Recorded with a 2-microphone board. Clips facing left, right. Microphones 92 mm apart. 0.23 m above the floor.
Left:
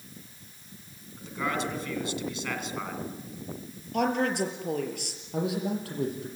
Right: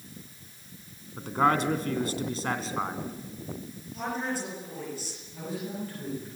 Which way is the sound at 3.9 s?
70° left (ahead or behind).